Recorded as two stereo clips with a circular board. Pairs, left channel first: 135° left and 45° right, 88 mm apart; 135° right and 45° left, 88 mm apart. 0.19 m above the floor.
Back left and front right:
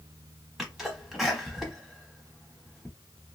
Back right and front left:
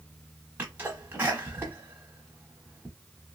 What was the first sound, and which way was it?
A sneeze, 35° left.